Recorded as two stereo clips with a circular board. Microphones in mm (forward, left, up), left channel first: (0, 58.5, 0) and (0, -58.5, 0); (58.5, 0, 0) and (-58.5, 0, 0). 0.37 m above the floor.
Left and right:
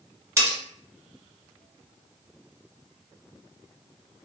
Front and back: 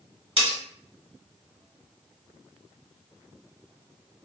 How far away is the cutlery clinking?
About 1.2 m.